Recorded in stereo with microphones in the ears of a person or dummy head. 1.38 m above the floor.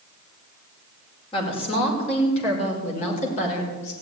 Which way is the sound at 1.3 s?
30° left (ahead or behind).